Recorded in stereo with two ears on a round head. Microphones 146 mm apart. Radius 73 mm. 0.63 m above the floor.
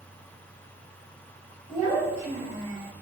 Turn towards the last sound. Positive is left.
turn(degrees=-25)  # may be behind; listen again after turning